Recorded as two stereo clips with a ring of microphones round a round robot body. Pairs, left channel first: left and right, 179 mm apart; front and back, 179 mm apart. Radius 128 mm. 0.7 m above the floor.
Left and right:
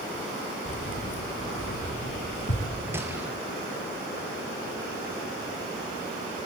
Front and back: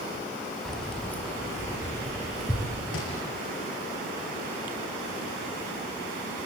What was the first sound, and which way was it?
Keys jangling, 90° left.